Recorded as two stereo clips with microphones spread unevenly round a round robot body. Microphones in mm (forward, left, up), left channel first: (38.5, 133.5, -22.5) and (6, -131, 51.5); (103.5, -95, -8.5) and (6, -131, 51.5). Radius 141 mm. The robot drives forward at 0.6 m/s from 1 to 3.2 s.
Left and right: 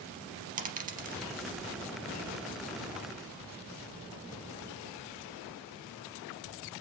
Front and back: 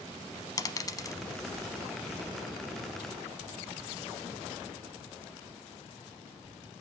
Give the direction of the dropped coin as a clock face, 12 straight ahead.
2 o'clock.